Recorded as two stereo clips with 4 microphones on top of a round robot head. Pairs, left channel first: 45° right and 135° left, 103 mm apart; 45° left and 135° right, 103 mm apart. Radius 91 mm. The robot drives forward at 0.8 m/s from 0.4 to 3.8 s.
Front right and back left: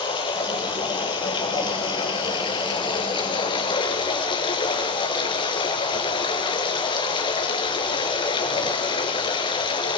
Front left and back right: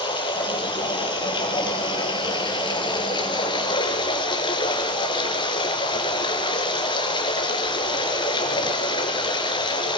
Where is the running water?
Straight ahead, 6.5 m.